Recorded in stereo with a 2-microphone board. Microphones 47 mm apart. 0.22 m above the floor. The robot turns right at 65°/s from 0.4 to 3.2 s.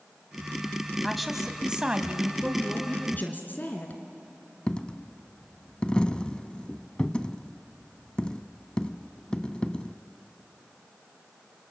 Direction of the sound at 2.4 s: 5° right.